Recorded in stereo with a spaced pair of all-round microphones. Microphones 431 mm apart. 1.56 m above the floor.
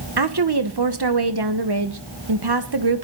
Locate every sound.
0.2 s a woman speaking: 60° right (ahead or behind), 1.2 m